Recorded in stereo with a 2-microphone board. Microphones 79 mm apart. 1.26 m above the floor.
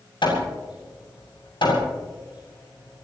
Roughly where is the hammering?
Left.